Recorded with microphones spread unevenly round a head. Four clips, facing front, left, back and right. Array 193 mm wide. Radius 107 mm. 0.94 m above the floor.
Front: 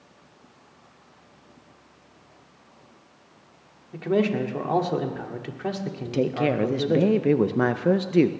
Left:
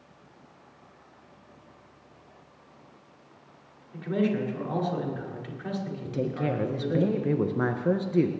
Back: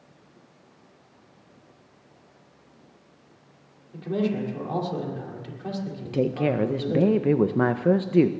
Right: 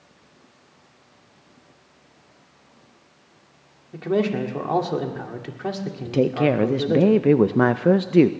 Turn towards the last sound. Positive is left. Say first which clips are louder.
# right 11 dB, front 1 dB
turn(degrees=-95)